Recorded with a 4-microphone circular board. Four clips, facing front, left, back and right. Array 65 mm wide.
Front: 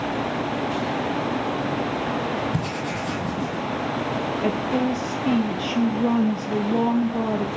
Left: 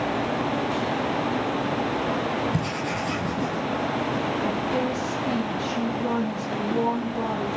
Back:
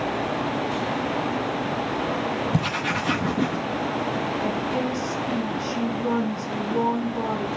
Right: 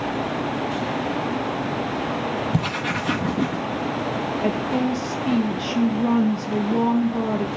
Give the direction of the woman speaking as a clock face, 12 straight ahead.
1 o'clock.